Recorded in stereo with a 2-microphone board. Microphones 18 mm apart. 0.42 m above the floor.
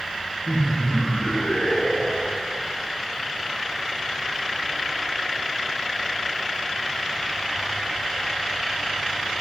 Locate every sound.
0.5 s laughter: 35° left (ahead or behind), 6 m; by 2.5 s 45° left (ahead or behind), 5 m